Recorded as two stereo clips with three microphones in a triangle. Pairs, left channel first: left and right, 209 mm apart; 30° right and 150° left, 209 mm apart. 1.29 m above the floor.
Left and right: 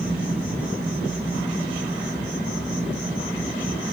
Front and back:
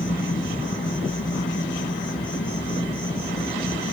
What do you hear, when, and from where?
0.0 s an insect: 5° right, 4.5 m